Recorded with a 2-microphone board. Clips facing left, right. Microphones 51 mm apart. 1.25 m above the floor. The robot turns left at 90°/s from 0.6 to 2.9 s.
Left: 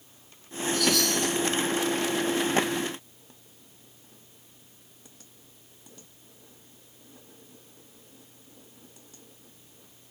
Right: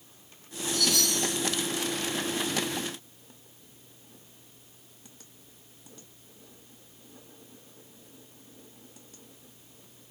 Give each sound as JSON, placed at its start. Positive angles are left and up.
{"t": 0.7, "sound": "a chime", "azimuth_deg": 10, "distance_m": 2.5}